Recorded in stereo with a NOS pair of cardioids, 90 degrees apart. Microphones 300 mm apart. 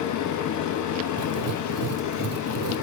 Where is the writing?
55° right, 1.0 m.